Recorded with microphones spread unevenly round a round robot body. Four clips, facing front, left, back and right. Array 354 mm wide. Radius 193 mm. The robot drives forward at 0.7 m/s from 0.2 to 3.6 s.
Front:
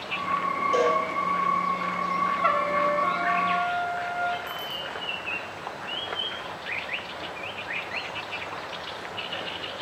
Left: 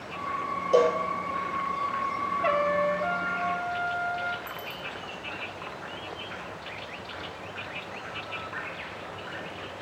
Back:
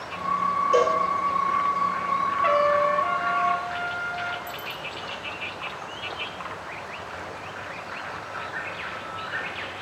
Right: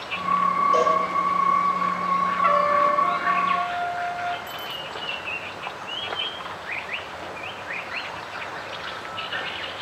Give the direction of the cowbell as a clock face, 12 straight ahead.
9 o'clock.